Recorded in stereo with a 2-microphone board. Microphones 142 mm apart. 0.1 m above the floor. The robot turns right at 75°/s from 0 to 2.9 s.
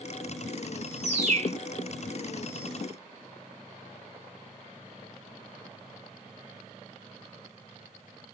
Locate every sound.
1.0 s a bird: 110° right, 0.8 m; by 1.5 s 70° right, 0.8 m